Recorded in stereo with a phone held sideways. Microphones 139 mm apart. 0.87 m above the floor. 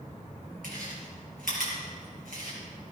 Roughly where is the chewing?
Right.